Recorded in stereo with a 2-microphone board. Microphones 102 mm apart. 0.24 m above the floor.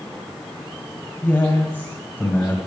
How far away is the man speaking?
About 1.8 m.